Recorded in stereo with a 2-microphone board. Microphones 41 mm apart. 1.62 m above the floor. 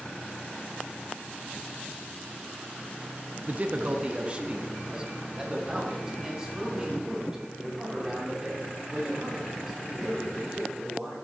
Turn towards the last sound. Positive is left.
turn(degrees=-15)  # may be behind; listen again after turning